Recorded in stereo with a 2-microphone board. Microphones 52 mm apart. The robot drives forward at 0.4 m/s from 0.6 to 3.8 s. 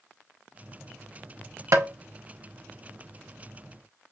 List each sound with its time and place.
1.7 s tapping: 65° right (ahead or behind), 0.8 m; by 1.9 s 60° right (ahead or behind), 0.8 m